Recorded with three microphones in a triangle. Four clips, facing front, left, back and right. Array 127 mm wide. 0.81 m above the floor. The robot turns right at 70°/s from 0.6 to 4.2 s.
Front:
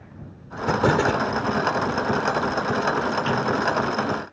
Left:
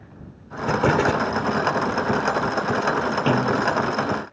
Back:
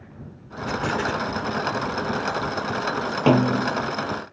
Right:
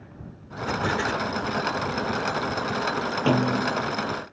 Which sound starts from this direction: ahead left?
An explosion, at 0.7 s.